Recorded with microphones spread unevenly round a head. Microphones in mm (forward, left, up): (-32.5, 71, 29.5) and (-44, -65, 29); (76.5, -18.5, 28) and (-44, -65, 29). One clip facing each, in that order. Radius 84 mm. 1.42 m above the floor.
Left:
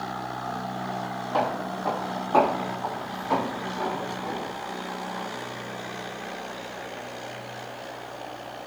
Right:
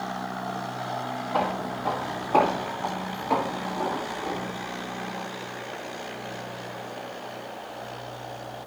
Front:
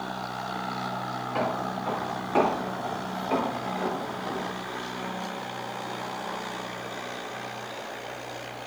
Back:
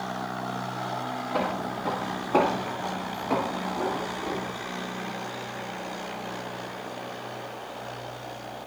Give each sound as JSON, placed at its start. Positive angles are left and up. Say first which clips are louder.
{"t": 1.3, "sound": "footsteps", "louder": "left 1 dB, front 1 dB", "azimuth_deg": 175, "distance_m": 2.5}